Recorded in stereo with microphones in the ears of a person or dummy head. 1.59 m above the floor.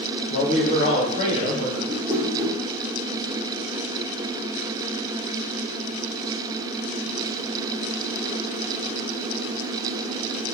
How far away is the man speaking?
About 1.2 m.